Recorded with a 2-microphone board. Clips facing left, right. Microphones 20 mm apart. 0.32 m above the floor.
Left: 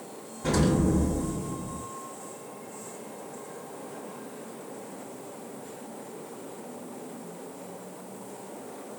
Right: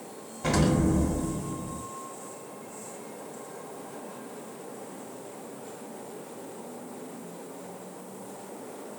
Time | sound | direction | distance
0.4 | an explosion | 50° right (ahead or behind) | 1.3 m